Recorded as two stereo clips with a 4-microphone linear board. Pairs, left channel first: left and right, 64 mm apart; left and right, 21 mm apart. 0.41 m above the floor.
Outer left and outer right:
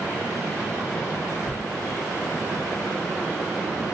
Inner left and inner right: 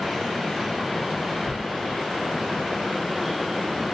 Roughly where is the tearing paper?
Left.